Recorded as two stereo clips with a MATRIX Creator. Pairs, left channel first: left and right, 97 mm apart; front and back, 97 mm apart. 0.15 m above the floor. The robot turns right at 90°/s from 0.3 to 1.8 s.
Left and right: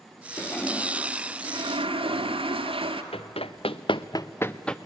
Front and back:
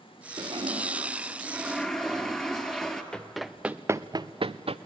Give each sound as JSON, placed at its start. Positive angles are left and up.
{"t": 0.4, "sound": "a toilet flushing", "azimuth_deg": 150, "distance_m": 1.5}
{"t": 3.1, "sound": "running footsteps", "azimuth_deg": 80, "distance_m": 1.1}